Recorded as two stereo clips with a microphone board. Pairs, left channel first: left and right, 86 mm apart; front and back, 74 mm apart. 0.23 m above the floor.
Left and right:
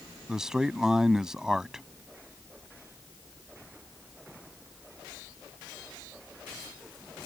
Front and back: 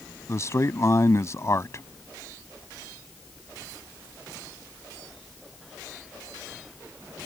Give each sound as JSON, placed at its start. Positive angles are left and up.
{"t": 0.3, "sound": "a man speaking", "azimuth_deg": -10}